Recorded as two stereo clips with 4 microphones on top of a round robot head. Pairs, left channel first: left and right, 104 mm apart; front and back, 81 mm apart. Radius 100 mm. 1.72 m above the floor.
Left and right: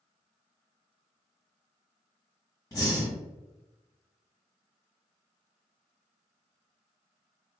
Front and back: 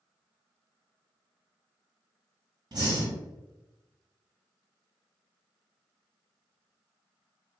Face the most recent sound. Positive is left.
turn(degrees=150)